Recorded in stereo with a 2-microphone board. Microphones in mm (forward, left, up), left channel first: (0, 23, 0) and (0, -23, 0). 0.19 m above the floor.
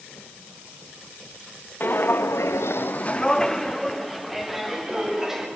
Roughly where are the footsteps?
Left.